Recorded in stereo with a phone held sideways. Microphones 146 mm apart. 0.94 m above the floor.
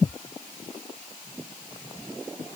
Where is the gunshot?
I don't hear a gunshot.